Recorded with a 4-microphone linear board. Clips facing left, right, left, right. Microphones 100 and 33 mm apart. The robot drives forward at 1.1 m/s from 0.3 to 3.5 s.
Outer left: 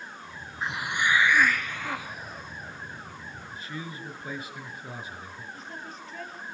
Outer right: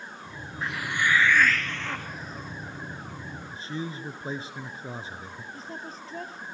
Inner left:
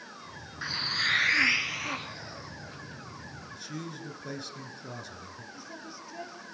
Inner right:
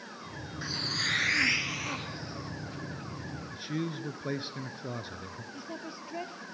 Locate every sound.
0.6 s a hiss: 20° left (ahead or behind), 0.5 m; by 2.8 s 5° left (ahead or behind), 2.5 m
3.5 s a man speaking: 30° right (ahead or behind), 1.8 m
5.5 s a woman speaking: 35° right (ahead or behind), 3 m